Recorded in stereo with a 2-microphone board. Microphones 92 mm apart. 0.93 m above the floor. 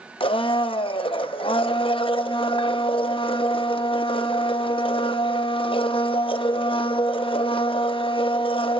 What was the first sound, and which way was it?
A blender, 75° left (ahead or behind).